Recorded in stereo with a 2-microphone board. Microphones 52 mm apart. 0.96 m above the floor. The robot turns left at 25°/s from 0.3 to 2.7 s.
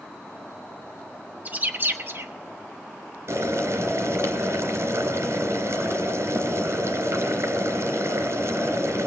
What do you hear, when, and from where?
1.4 s a bird: 30° right (ahead or behind), 1.0 m; by 2.3 s 50° right (ahead or behind), 1.0 m
3.3 s boiling: 60° right (ahead or behind), 2.5 m